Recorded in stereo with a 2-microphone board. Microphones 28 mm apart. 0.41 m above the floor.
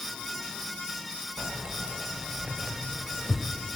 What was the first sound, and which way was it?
Keys jangling, 45° right (ahead or behind).